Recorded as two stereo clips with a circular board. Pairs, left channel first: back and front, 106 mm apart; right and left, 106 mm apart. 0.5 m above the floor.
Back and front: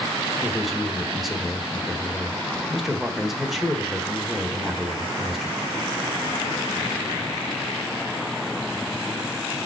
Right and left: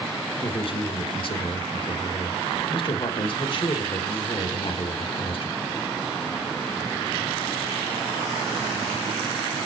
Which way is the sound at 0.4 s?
90° right.